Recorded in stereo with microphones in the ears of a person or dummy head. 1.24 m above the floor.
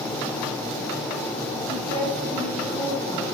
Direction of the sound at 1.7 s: 35° right (ahead or behind).